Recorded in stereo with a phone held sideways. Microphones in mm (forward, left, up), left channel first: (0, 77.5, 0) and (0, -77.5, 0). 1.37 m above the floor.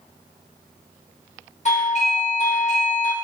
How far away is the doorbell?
About 0.9 m.